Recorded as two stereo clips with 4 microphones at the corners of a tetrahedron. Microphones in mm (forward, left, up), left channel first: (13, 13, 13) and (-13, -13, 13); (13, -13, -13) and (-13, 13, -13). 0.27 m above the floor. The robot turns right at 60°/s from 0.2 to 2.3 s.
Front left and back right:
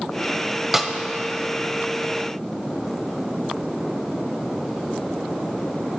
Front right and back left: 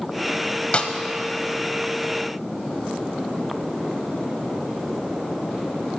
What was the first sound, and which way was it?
A snare drum, 60° right.